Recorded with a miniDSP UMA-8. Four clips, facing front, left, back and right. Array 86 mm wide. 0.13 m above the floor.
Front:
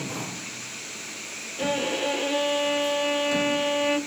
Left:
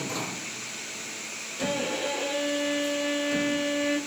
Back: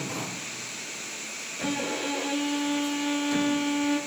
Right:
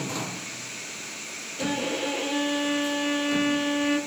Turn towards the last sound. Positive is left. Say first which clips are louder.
# right 1 dB, front 4 dB
turn(degrees=-15)